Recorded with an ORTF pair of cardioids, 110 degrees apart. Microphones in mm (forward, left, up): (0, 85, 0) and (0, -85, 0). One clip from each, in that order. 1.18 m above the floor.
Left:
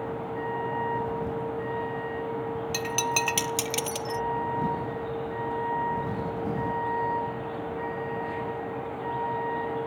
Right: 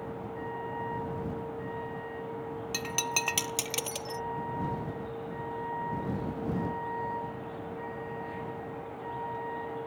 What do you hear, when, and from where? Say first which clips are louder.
0.0 s a vehicle: left 6 dB; 40° left
2.7 s breaking glass: left 4 dB; 15° left